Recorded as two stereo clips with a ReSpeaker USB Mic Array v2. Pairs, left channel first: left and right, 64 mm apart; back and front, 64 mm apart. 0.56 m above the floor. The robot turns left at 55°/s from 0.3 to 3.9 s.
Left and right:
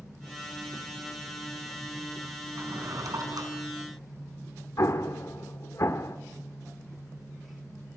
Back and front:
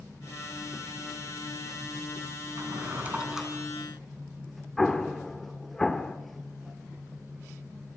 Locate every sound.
2.6 s a drawer: 40° right, 3.5 m; by 3.5 s 95° right, 3.5 m
4.8 s an explosion: 100° left, 1.3 m